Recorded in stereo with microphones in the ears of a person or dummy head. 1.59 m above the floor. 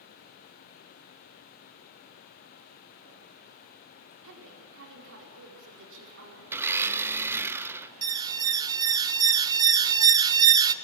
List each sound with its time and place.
4.2 s a woman speaking: 65° right (ahead or behind), 4.5 m
6.5 s a blender: 10° right (ahead or behind), 0.6 m
8.0 s an alarm: 20° right (ahead or behind), 0.7 m